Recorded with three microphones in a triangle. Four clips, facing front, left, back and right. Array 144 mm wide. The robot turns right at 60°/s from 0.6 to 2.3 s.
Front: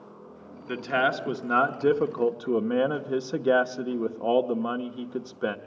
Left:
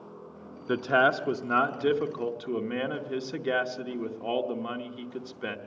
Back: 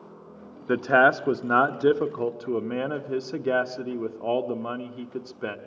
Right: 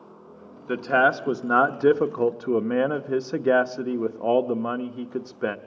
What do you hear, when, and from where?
0.7 s a man speaking: 175° right, 0.8 m; by 5.6 s 75° right, 0.8 m